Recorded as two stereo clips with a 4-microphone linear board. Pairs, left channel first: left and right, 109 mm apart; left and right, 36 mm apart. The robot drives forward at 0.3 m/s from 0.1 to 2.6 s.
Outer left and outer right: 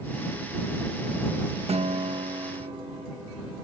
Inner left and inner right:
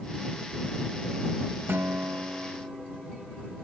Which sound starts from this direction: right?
A guitar, at 1.7 s.